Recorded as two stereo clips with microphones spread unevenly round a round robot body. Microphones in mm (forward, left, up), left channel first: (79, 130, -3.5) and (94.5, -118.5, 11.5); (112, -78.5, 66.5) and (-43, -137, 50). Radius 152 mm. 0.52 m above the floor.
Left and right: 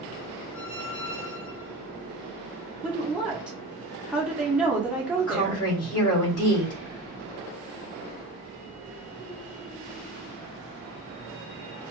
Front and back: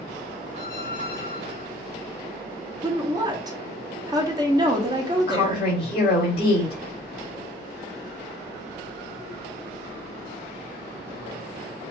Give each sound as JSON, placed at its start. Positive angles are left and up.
{"t": 0.5, "sound": "a squeak", "azimuth_deg": 85, "distance_m": 2.5}
{"t": 2.8, "sound": "a woman speaking", "azimuth_deg": -175, "distance_m": 0.8}
{"t": 5.2, "sound": "a woman speaking", "azimuth_deg": 85, "distance_m": 2.0}